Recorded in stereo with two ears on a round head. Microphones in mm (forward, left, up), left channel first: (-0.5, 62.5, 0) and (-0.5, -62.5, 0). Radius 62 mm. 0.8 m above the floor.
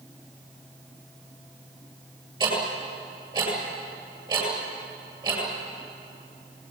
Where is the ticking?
35° right (ahead or behind), 9 m.